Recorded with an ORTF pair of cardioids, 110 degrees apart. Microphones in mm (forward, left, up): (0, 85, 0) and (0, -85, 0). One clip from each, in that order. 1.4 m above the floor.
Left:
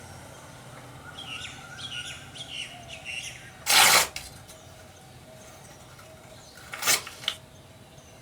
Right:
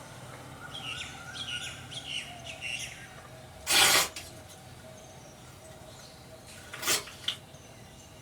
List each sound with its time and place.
3.7 s tearing paper: 55° left, 1.6 m